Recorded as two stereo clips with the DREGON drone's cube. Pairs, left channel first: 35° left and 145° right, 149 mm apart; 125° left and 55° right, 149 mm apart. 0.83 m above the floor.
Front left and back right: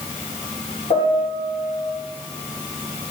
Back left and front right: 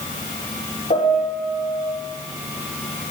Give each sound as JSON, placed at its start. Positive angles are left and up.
{"t": 0.9, "sound": "a piano", "azimuth_deg": 85, "distance_m": 8.5}